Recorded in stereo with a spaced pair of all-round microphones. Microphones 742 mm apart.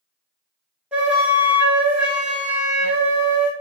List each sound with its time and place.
0.9 s a flute: centre (ahead or behind), 0.5 m